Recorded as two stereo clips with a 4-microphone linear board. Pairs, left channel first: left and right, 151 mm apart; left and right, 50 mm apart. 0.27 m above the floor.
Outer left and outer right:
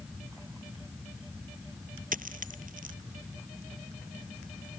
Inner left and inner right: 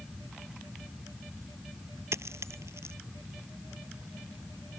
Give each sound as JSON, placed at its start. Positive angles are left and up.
{"t": 2.1, "sound": "a dropped coin", "side_deg": -65}